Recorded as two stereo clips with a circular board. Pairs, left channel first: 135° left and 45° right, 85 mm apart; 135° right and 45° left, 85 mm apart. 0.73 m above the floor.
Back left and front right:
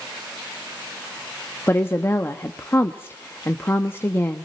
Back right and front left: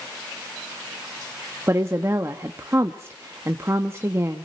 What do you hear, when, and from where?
1.7 s a woman speaking: 85° left, 0.9 m